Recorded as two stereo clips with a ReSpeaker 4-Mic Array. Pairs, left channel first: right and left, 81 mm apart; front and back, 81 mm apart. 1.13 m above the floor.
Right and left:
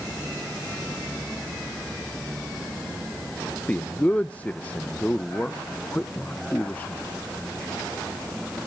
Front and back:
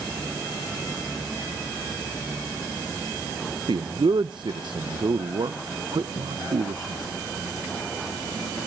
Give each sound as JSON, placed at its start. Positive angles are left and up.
{"t": 3.7, "sound": "a man speaking", "azimuth_deg": -160, "distance_m": 0.5}